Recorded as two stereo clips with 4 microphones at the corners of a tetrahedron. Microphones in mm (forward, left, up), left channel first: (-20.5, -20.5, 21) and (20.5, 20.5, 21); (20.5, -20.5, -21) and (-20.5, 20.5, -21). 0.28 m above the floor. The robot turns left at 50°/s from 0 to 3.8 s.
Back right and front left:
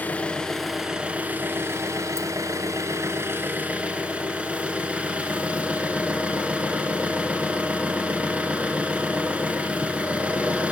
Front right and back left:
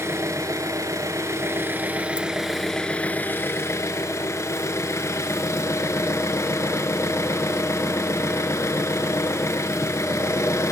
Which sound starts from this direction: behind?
An engine running, at 0.0 s.